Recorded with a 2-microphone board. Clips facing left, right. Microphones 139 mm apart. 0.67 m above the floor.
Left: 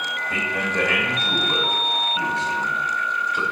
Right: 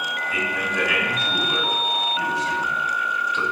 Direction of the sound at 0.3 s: 60° left (ahead or behind).